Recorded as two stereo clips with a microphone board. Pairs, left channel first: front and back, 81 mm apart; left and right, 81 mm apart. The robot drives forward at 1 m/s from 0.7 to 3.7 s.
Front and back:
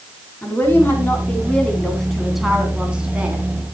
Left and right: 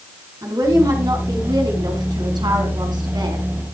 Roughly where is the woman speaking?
Ahead right.